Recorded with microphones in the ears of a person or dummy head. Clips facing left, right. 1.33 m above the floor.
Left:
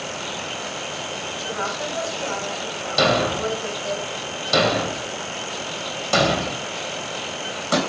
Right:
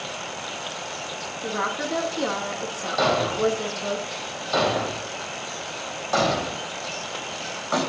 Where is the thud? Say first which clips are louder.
Left 1 dB; 45° left (ahead or behind), 3.5 m.